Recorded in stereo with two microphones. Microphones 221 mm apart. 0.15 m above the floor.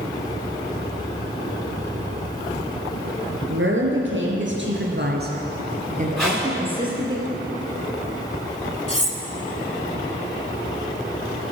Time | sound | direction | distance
3.5 | a woman speaking | 60° right (ahead or behind) | 3 m
6.2 | tape being pulled | 5° left (ahead or behind) | 5.5 m
8.9 | cutlery clinking | 30° left (ahead or behind) | 1.2 m